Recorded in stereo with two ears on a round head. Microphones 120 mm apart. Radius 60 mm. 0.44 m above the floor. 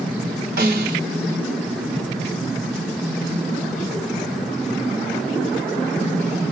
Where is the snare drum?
80° right, 2.5 m.